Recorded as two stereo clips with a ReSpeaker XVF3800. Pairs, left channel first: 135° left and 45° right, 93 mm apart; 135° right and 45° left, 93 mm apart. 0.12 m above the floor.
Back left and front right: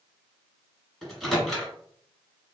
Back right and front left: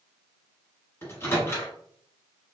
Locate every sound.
1.0 s a microwave: 140° right, 1.4 m